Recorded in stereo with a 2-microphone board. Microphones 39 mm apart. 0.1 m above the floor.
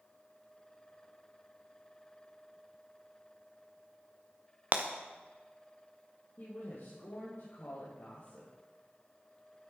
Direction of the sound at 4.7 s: 40° right (ahead or behind).